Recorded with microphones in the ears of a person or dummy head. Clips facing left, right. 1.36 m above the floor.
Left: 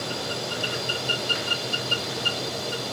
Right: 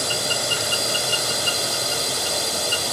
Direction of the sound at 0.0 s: 80° right.